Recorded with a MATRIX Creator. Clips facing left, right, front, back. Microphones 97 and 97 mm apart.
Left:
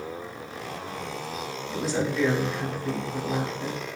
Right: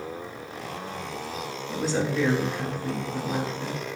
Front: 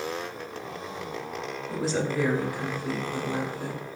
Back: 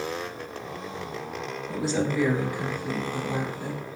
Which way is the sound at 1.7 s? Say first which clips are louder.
Right 1 dB, back 1 dB; 40° right.